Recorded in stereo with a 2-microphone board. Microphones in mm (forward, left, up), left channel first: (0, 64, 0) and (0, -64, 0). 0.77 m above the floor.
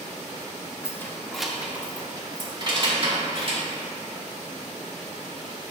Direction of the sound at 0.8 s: 25° left (ahead or behind).